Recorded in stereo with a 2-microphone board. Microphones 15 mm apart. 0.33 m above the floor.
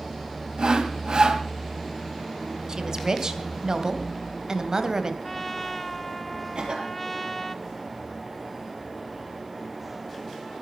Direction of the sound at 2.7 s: 45° right (ahead or behind).